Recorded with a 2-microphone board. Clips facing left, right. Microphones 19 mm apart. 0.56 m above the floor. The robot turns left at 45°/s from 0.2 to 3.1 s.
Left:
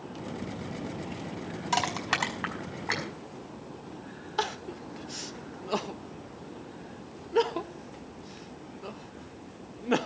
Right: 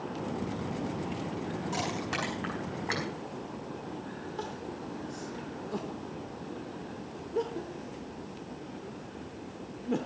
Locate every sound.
1.7 s crushing: 65° left (ahead or behind), 4.5 m; by 3.1 s 5° left (ahead or behind), 4.5 m
4.4 s crying: 70° left (ahead or behind), 0.6 m